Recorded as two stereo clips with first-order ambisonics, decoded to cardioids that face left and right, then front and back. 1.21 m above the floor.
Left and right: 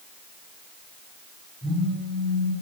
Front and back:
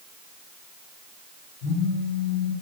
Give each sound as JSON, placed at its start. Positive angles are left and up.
{"t": 1.6, "sound": "a phone buzzing", "azimuth_deg": -10, "distance_m": 1.4}